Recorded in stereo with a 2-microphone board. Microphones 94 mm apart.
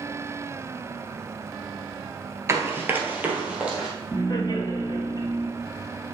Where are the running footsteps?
30° right (ahead or behind), 1.1 m; by 3.9 s 10° right (ahead or behind), 2 m.